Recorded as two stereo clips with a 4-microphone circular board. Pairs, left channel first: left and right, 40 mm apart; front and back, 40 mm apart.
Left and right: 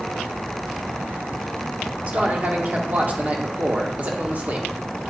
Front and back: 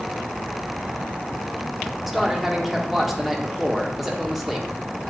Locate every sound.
2.1 s a man speaking: 95° right, 1.1 m